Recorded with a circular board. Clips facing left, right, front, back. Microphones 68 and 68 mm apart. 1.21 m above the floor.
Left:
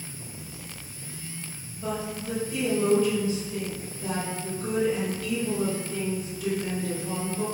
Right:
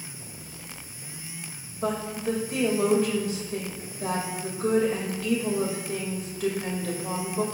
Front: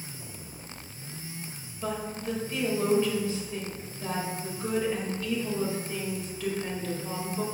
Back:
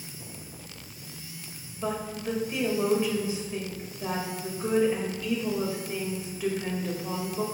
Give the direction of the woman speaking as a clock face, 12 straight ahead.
4 o'clock.